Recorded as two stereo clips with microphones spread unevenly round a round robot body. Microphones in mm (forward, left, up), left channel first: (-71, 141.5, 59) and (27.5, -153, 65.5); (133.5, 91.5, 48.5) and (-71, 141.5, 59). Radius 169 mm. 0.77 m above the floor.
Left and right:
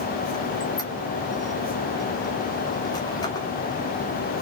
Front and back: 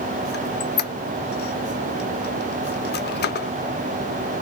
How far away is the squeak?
About 0.5 m.